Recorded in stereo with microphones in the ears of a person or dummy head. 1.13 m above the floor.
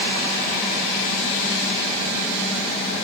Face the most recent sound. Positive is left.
No sound to turn to.